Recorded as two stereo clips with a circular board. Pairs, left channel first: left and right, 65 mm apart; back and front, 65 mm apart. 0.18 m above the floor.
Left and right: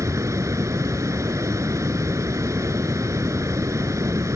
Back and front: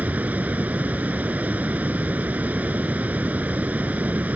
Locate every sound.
0.0 s running water: 60° right, 0.7 m